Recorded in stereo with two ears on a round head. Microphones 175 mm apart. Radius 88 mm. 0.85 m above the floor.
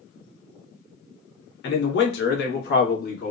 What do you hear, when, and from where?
1.6 s a man speaking: 55° left (ahead or behind), 1.0 m; by 3.3 s 40° left (ahead or behind), 1.2 m